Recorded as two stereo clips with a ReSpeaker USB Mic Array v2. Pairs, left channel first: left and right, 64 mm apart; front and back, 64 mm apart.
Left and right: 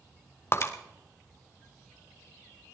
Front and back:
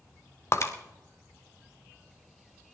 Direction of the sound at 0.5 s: 40° left.